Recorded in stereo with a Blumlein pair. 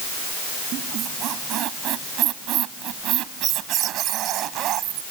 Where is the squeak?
35° right.